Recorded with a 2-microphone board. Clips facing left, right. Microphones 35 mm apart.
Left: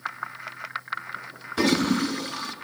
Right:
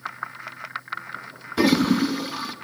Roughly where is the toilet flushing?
Centre.